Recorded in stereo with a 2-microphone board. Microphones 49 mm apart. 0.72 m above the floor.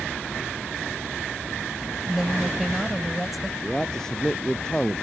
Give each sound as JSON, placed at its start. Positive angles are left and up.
{"t": 2.0, "sound": "a woman speaking", "side_deg": 0}
{"t": 3.6, "sound": "a man speaking", "side_deg": 10}